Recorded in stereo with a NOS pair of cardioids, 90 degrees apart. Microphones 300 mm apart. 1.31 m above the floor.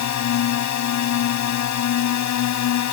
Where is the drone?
70° left.